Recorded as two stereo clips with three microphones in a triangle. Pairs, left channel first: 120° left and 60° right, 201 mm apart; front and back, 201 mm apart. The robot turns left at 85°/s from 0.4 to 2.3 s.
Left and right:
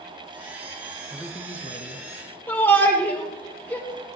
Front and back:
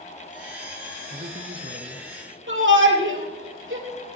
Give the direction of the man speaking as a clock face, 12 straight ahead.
5 o'clock.